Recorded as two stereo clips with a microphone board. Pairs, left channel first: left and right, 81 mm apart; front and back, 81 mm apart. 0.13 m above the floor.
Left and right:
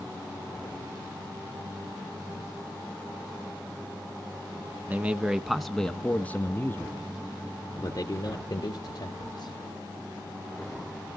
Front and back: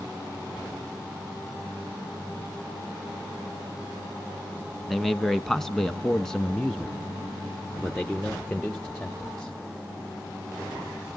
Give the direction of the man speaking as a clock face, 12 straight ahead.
3 o'clock.